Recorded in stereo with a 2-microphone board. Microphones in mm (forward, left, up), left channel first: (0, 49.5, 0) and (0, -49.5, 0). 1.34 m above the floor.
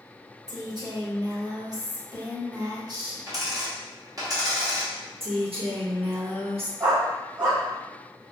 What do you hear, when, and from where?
0.5 s a woman speaking: 45° right (ahead or behind), 1.3 m
3.3 s a dropped coin: 35° right (ahead or behind), 1.0 m
5.2 s a woman speaking: 80° right, 1.1 m
6.8 s a dog barking: 40° right (ahead or behind), 1.9 m